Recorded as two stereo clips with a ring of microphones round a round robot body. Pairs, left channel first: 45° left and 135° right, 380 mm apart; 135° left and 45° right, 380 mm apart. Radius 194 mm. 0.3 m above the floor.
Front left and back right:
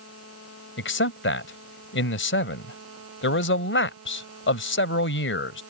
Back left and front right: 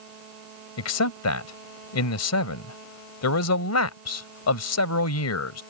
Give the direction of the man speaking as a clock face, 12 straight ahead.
9 o'clock.